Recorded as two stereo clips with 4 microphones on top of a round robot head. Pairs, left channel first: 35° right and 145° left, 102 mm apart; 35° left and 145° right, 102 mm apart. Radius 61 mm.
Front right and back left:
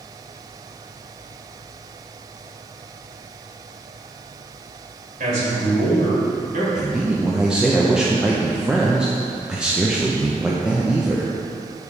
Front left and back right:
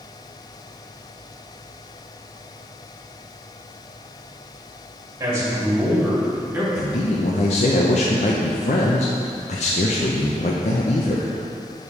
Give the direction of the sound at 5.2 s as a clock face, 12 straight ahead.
7 o'clock.